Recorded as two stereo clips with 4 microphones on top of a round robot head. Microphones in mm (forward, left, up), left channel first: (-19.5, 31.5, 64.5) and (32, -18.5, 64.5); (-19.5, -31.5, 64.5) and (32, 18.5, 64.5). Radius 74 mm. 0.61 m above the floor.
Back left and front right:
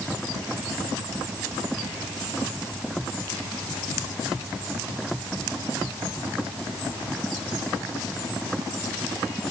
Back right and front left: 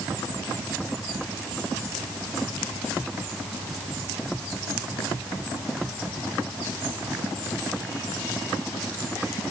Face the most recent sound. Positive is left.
No sound to turn to.